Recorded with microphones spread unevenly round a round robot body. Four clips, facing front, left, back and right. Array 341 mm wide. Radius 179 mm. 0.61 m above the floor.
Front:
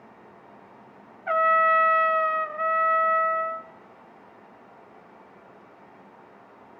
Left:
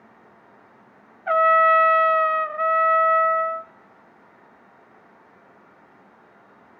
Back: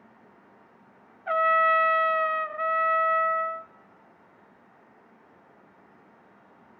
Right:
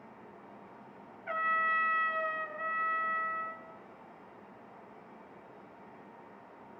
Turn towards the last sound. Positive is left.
turn(degrees=80)